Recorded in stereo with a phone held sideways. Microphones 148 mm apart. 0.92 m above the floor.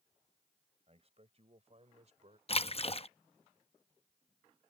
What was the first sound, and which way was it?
A man speaking, 45° right (ahead or behind).